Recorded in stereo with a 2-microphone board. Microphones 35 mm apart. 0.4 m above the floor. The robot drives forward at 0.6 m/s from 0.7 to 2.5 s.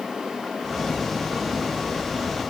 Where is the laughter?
I don't hear laughter.